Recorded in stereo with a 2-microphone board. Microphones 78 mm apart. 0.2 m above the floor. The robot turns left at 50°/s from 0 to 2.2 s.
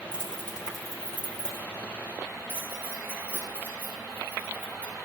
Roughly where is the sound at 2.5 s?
Right.